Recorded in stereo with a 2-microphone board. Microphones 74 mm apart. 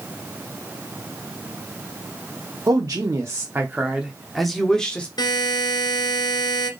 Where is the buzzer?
70° left (ahead or behind), 1.3 m.